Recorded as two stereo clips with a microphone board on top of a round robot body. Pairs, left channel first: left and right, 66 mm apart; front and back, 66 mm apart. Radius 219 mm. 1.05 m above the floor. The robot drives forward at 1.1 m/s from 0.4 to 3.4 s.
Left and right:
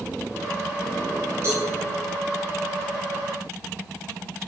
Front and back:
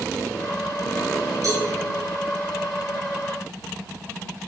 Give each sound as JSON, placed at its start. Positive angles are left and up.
{"t": 1.4, "sound": "a cowbell", "azimuth_deg": -145, "distance_m": 7.5}